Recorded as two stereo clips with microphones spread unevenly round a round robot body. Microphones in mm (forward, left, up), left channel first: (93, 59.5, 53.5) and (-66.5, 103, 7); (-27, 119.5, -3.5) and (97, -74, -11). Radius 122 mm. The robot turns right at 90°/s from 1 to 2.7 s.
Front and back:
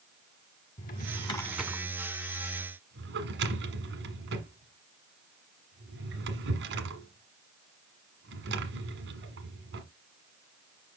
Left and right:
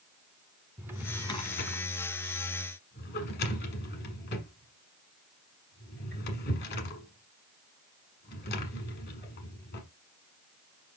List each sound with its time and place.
0.8 s a drawer: 25° left, 1.3 m; by 9.8 s 175° left, 1.3 m